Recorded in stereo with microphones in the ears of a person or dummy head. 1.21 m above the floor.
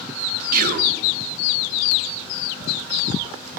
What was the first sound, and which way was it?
Whispering, 50° right (ahead or behind).